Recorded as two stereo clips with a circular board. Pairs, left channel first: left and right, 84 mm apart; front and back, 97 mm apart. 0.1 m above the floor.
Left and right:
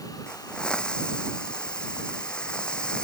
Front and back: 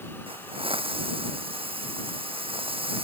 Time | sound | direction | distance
0.3 | a hiss | 170° left | ?